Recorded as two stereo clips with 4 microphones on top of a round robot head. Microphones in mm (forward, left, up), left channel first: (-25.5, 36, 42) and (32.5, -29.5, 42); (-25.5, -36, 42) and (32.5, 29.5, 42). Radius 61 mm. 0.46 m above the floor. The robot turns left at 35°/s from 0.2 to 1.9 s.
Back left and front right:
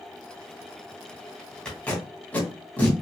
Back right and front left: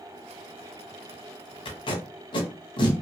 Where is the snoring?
No snoring in this recording.